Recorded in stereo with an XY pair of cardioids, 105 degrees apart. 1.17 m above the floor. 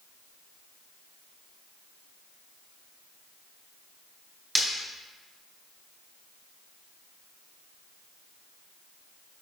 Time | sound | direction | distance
4.5 | breaking glass | 5° right | 3 m